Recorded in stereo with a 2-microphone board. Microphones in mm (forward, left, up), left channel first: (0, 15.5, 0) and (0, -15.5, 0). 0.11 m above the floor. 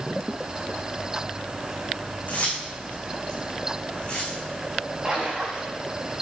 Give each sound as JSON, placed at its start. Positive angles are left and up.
{"t": 2.3, "sound": "keys jangling", "side_deg": 50, "distance_m": 5.0}
{"t": 5.0, "sound": "a splash", "side_deg": -20, "distance_m": 6.0}